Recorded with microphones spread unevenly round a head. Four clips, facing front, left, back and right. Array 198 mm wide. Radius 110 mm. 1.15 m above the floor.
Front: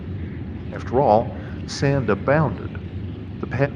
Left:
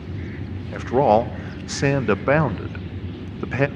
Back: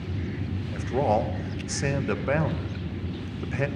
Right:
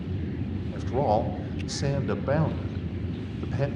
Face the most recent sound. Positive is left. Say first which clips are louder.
# left 8 dB, front 8 dB
turn(degrees=60)